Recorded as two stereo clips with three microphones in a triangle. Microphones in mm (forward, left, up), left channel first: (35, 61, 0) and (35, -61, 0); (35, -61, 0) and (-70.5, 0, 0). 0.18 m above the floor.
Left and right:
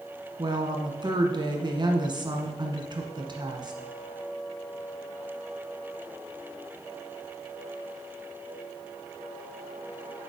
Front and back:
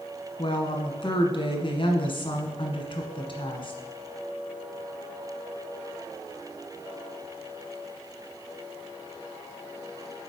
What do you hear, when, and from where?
0.4 s a woman speaking: 55° right, 1.6 m